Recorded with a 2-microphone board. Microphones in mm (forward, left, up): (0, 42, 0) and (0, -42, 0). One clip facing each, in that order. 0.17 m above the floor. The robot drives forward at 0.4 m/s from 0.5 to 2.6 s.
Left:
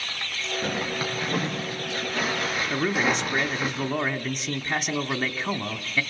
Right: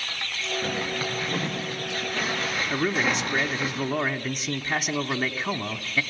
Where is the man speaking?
Centre (ahead or behind), 1.0 m.